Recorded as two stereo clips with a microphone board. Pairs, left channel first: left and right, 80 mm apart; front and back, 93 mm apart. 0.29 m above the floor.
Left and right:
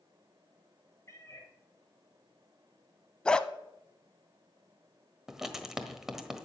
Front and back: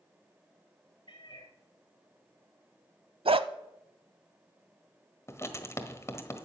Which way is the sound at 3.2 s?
170° left.